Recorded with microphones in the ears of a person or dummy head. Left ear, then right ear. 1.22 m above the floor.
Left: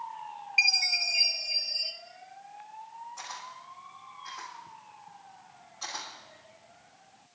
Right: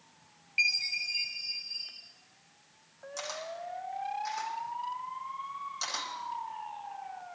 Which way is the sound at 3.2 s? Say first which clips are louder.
Right 7 dB; 85° right.